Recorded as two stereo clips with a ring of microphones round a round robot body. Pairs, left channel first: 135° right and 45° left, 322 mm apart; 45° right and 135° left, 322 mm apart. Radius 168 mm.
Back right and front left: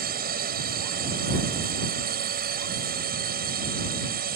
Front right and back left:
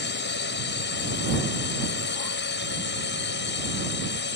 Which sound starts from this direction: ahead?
A drone, at 0.0 s.